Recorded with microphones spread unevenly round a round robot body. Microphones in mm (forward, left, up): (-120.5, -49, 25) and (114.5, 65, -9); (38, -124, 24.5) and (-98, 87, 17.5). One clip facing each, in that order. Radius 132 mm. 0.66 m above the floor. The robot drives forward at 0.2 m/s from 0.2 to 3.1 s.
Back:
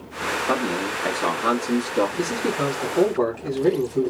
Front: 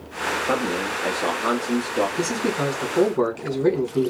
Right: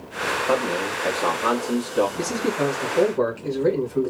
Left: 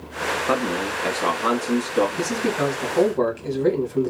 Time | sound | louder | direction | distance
0.5 | a man speaking | even, right 1 dB | 105° left | 0.9 m
2.2 | a man speaking | even, even | 65° left | 1.8 m